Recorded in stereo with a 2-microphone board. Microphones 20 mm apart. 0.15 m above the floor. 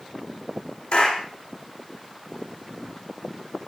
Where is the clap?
65° left (ahead or behind), 9.5 m.